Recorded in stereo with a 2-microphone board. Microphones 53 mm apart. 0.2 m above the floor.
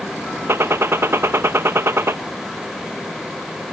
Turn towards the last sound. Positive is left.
turn(degrees=-50)  # may be behind; listen again after turning